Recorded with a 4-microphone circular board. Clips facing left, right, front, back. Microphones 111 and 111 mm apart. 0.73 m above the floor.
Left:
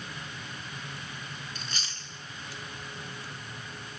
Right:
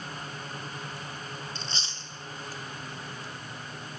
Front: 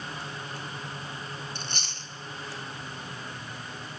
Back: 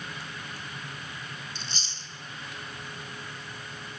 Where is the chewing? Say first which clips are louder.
Right 2 dB, front 3 dB; 30° right, 1.2 m.